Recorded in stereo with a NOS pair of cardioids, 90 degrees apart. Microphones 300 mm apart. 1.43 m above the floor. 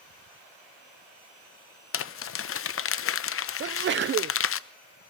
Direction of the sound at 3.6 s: 40° right.